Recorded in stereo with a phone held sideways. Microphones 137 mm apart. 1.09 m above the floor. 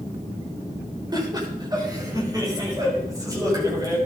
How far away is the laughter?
About 4 m.